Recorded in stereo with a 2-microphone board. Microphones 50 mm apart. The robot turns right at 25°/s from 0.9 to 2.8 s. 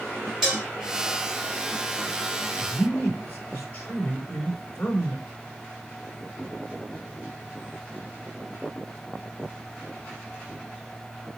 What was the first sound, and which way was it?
Dishes clattering, 10° right (ahead or behind).